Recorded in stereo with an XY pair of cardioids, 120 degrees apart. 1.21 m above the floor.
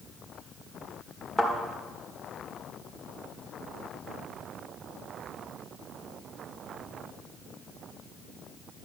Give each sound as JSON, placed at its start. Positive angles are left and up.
{"t": 1.4, "sound": "a thud", "azimuth_deg": -5, "distance_m": 1.8}